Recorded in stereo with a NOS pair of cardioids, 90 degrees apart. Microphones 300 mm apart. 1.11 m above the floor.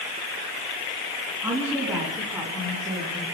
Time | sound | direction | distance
1.4 | a woman speaking | 15° right | 9.5 m